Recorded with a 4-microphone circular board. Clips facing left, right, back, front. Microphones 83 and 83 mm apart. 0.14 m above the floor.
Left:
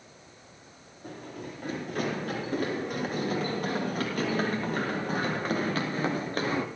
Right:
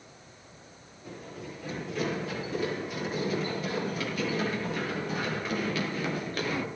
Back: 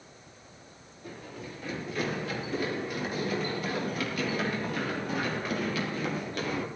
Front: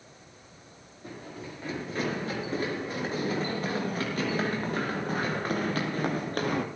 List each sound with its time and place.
1.0 s running footsteps: 60° left, 9.5 m; by 6.7 s 35° left, 2.5 m